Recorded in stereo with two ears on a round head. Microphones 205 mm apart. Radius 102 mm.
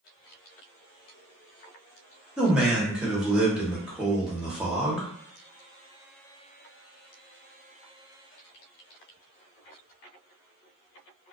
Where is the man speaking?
5° right (ahead or behind), 0.8 m.